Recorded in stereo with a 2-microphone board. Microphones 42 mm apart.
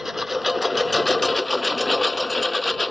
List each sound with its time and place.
0.0 s a lawn mower: 10° right (ahead or behind); by 2.9 s 20° left (ahead or behind)